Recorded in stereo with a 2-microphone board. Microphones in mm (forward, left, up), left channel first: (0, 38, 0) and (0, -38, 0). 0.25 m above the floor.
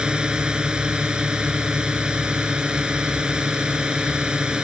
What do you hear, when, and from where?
0.0 s a drone: 10° right (ahead or behind)